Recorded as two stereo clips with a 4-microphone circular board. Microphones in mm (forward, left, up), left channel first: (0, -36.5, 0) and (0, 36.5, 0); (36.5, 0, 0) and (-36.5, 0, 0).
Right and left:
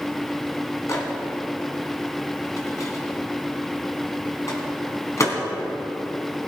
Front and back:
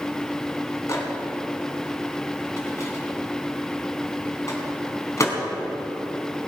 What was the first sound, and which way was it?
A microwave, 45° right.